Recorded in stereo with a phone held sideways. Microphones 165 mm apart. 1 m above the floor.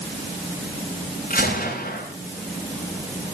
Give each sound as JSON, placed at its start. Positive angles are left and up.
{"t": 1.3, "sound": "a gunshot", "side_deg": 55, "distance_m": 8.5}